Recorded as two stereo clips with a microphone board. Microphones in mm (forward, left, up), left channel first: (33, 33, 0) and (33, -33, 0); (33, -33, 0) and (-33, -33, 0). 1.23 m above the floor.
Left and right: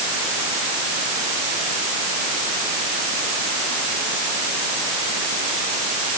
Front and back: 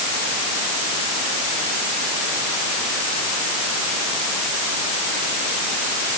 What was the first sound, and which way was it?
Only background noise.